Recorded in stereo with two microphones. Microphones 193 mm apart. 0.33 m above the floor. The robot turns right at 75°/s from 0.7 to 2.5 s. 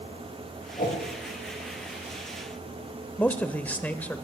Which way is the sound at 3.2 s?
10° left (ahead or behind).